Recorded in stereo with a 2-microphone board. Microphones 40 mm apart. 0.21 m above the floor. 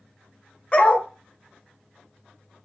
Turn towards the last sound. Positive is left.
turn(degrees=30)  # may be behind; listen again after turning